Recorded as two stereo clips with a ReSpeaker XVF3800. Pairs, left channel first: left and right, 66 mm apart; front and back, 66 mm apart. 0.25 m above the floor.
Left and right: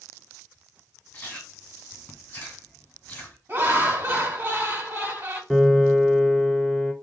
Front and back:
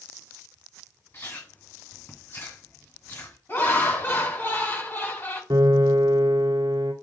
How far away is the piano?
About 0.7 m.